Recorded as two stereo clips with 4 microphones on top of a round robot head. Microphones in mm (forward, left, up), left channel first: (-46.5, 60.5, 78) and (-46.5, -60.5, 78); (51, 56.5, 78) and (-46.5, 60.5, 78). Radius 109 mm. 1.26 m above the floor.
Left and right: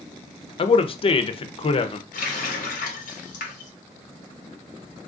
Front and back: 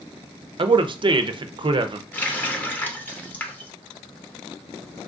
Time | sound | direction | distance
0.6 | a man speaking | 135° left | 0.5 m
2.1 | a running tap | 70° left | 0.6 m